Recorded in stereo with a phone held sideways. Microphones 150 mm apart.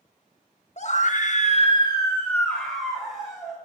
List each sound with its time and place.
0.8 s a scream: 50° left (ahead or behind), 1.1 m; by 3.6 s 5° right (ahead or behind), 2.5 m